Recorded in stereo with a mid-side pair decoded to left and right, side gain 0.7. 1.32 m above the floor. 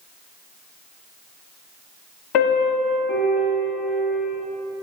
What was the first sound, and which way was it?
A piano, 65° left.